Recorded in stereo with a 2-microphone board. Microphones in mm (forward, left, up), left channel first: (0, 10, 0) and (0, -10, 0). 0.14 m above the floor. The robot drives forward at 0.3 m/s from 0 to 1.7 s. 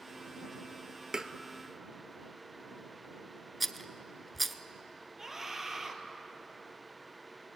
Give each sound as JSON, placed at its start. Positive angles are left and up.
{"t": 1.1, "sound": "tapping", "side_deg": -30, "distance_m": 0.9}
{"t": 3.6, "sound": "a rattle", "side_deg": 5, "distance_m": 0.8}
{"t": 5.2, "sound": "a scream", "side_deg": -20, "distance_m": 3.0}